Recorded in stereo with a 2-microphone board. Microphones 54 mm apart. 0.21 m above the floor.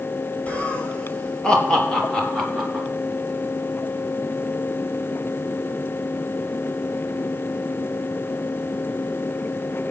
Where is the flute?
No flute in this recording.